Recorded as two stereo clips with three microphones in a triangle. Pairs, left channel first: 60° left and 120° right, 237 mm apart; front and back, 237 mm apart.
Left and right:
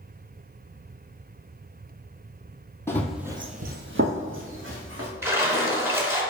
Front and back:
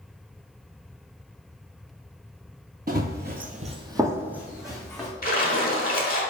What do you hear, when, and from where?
2.9 s running footsteps: 135° left, 0.7 m; by 5.1 s 90° right, 1.6 m
5.2 s a splash: 40° right, 1.1 m